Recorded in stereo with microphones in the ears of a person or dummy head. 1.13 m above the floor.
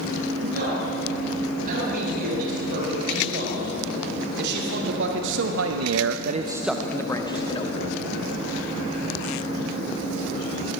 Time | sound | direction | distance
0.4 | a man speaking | 50° right (ahead or behind) | 8.5 m